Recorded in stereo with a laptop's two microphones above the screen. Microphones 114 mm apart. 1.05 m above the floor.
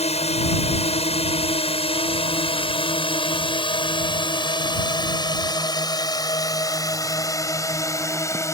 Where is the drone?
70° left (ahead or behind); by 8.6 s 25° left (ahead or behind).